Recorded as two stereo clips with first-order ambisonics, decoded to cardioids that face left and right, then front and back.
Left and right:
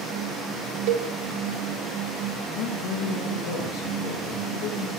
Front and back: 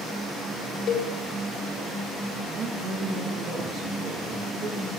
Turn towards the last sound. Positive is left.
turn(degrees=115)